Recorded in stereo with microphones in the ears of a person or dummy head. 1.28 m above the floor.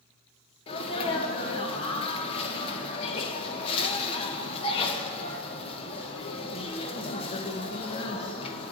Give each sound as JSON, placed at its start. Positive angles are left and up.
{"t": 0.7, "sound": "a sneeze", "side_deg": 35, "distance_m": 0.9}